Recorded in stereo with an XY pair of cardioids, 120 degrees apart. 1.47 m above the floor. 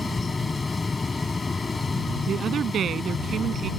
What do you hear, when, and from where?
0.0 s a fan: 20° left
2.3 s a woman speaking: 50° right